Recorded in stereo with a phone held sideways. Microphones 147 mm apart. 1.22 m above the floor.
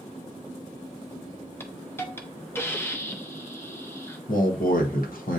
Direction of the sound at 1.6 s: 15° left (ahead or behind).